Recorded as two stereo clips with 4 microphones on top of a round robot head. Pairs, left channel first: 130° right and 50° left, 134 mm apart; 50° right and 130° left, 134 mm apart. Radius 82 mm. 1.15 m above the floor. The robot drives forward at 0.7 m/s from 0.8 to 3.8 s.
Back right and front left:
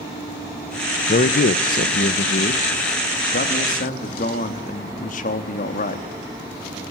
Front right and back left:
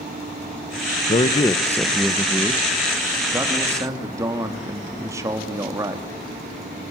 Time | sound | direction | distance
1.1 | a man speaking | 100° right | 0.8 m